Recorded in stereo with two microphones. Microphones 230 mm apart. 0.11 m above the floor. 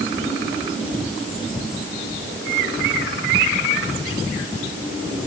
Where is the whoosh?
No whoosh in this recording.